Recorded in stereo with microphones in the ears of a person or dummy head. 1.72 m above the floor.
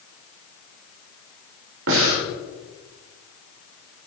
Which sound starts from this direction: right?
Breathing, at 1.9 s.